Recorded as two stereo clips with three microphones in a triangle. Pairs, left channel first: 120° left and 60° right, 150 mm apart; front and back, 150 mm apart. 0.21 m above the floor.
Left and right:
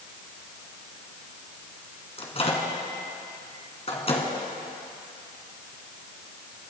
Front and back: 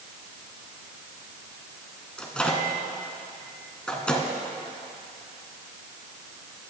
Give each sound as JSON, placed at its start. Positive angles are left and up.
{"t": 2.2, "sound": "a microwave", "azimuth_deg": 80, "distance_m": 1.9}